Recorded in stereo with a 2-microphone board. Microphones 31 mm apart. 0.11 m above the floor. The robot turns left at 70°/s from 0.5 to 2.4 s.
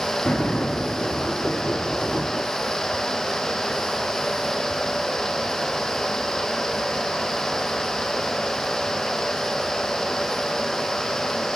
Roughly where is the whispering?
I don't hear whispering.